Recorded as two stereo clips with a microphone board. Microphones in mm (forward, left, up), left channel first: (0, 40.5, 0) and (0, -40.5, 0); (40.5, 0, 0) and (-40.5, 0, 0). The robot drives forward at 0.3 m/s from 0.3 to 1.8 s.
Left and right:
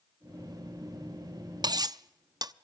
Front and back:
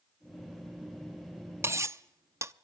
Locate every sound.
1.6 s cutlery clinking: 125° right, 0.5 m